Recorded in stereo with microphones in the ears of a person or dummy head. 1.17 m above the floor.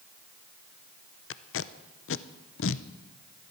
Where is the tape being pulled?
65° left (ahead or behind), 0.6 m.